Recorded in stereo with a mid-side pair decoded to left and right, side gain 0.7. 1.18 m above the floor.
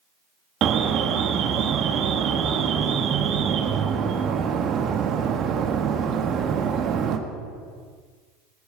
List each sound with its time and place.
0.6 s an alarm: 45° right, 1.7 m